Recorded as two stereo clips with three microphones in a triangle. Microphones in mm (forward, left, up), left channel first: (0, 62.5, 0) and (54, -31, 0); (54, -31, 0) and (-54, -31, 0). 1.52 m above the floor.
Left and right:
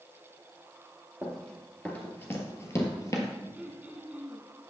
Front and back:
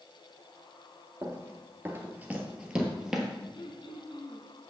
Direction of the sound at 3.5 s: 20° left.